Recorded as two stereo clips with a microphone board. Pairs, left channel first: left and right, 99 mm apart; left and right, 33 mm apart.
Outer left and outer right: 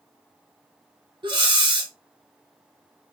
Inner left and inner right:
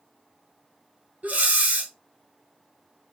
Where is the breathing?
60° right (ahead or behind), 1.0 m.